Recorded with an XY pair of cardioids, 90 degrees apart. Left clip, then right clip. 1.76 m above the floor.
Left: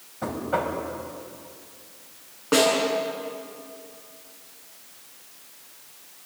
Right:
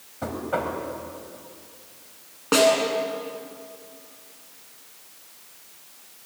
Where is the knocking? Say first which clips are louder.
Left 1 dB; 10° right, 6 m.